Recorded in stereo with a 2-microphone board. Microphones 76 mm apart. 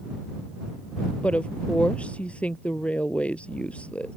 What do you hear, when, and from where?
1.2 s a woman speaking: 15° left (ahead or behind)